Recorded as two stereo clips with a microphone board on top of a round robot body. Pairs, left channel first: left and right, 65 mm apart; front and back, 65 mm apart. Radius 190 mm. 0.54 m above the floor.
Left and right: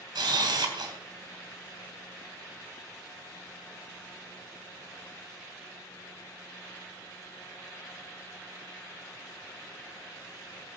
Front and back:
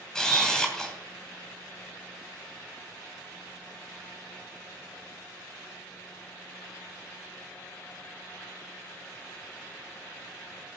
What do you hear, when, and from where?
0.1 s a camera shutter: 85° right, 3 m